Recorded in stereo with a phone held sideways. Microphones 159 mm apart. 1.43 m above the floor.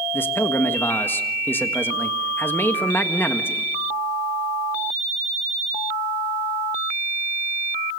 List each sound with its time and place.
0.1 s a man speaking: 10° left (ahead or behind), 1.5 m